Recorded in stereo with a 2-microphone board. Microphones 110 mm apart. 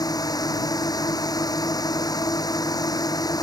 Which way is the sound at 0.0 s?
35° left (ahead or behind).